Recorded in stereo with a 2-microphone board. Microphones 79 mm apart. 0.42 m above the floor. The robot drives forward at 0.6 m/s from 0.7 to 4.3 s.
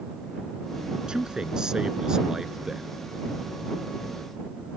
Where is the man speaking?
10° right (ahead or behind).